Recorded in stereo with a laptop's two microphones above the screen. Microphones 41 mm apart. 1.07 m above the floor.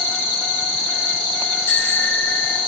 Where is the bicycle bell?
80° left, 6 m.